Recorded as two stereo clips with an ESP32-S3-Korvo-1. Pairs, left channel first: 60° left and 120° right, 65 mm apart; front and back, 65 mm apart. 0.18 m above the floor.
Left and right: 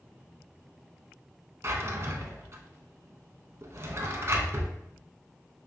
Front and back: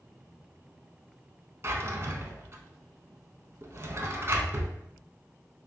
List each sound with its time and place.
1.6 s a drawer: 145° right, 0.6 m